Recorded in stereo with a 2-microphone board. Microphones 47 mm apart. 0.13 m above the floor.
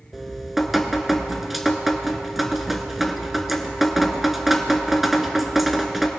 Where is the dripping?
Centre (ahead or behind), 0.8 m.